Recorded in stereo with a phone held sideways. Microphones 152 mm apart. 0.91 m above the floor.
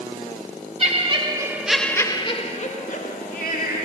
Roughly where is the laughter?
Right.